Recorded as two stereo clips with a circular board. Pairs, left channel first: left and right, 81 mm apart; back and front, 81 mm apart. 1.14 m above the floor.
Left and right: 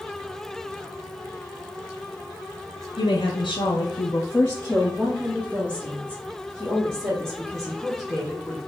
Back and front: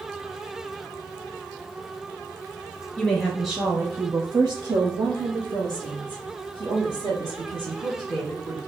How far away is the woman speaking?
About 1.0 m.